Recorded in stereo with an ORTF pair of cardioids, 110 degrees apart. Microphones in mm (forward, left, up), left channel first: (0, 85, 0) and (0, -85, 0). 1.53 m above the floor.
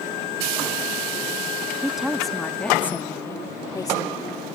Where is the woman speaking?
5° right; by 4.5 s 25° left.